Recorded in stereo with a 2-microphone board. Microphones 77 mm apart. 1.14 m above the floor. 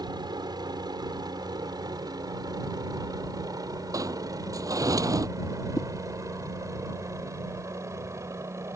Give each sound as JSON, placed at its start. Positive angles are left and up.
{"t": 0.0, "sound": "a helicopter", "side_deg": -65}
{"t": 3.9, "sound": "a sliding door", "side_deg": -50}
{"t": 5.8, "sound": "a whoosh", "side_deg": 50}